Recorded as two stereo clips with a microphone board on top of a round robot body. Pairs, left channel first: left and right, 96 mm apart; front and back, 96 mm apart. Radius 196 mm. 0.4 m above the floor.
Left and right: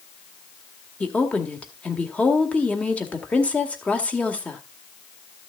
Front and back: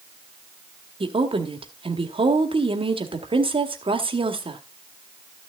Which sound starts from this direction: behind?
A woman speaking, at 1.0 s.